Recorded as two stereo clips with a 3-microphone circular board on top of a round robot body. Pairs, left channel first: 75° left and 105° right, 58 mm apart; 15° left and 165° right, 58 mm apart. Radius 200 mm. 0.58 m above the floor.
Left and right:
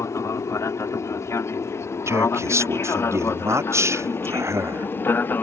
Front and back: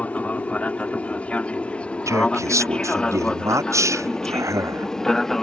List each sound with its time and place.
0.0 s an aircraft: 75° left; by 5.4 s 95° left
2.1 s a man speaking: 140° right